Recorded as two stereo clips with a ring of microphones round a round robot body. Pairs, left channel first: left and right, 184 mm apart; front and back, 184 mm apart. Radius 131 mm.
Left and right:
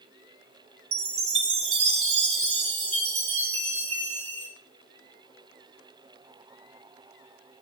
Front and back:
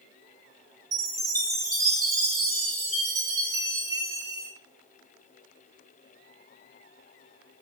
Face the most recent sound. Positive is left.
turn(degrees=-120)